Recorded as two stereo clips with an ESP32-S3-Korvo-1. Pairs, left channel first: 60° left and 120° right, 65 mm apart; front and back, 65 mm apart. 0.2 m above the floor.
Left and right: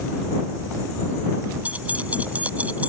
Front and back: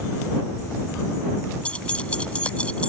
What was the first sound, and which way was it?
Keys jangling, 65° right.